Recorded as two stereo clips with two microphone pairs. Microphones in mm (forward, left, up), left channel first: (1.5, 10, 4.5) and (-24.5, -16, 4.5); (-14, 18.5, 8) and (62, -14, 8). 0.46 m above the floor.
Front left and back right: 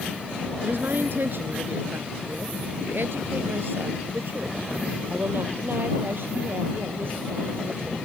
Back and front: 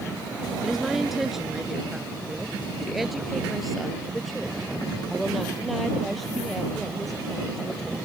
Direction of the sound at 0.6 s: 110° right.